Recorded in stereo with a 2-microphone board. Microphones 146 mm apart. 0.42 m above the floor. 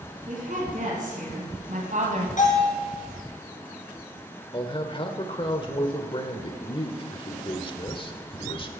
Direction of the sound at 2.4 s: 60° left (ahead or behind).